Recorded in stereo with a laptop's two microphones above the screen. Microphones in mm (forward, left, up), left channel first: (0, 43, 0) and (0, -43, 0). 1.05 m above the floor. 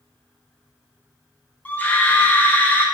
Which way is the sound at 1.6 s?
20° left (ahead or behind).